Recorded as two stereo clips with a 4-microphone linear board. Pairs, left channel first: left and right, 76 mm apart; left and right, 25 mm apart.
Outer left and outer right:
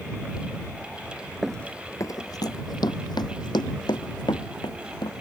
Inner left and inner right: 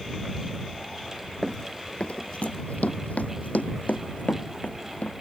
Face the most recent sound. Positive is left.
turn(degrees=75)  # may be behind; listen again after turning